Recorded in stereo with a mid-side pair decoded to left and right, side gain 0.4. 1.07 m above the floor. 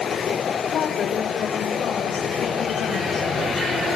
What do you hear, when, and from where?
0.7 s a woman speaking: 65° left, 4 m; by 3.3 s 70° left, 6 m